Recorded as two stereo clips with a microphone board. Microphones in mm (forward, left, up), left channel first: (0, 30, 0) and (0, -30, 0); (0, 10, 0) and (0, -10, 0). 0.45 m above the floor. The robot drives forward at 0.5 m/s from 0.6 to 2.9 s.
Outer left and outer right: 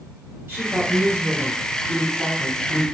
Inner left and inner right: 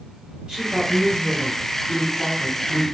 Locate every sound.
0.5 s a woman speaking: 40° right (ahead or behind), 1.8 m; by 3.0 s 30° right (ahead or behind), 2.5 m